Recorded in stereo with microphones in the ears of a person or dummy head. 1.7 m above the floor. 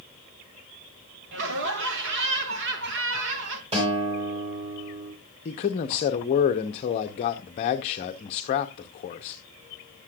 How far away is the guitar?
About 4.5 m.